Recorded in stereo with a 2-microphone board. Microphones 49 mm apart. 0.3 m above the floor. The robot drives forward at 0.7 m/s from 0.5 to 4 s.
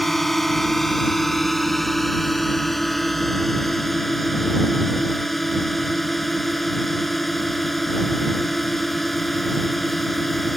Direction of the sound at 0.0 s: 5° left (ahead or behind).